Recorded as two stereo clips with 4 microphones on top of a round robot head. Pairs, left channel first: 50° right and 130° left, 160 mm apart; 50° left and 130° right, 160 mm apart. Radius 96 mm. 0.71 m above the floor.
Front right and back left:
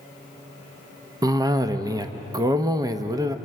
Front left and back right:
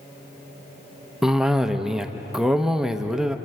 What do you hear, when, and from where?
1.2 s a cough: 150° left, 0.9 m